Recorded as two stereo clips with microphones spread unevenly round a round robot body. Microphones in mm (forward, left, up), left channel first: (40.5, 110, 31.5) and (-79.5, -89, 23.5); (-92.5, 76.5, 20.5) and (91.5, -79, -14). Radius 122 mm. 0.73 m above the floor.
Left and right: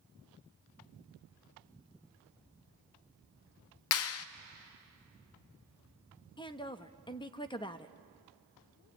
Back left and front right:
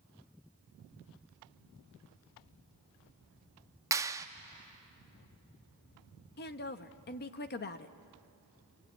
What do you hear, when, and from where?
3.9 s a clap: 35° left, 0.6 m
6.4 s a woman speaking: 115° left, 0.9 m